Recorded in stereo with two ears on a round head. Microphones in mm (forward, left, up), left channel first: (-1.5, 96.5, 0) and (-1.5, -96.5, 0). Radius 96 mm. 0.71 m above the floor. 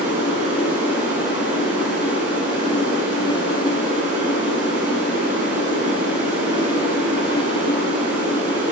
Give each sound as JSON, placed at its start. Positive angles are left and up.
{"t": 0.0, "sound": "running water", "side_deg": -55, "distance_m": 9.5}